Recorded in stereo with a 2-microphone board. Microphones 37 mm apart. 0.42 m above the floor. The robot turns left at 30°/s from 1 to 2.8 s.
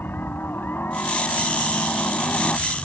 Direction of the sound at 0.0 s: 95° left.